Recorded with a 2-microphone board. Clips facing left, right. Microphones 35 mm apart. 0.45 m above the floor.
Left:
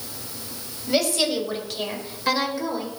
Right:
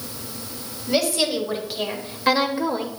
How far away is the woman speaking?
About 2.5 m.